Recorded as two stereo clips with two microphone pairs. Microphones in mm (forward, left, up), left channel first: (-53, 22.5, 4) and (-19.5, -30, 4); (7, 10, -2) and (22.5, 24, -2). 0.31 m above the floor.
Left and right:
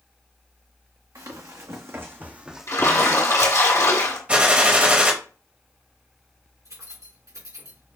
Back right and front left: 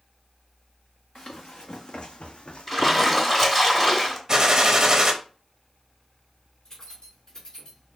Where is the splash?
140° left, 2.5 m.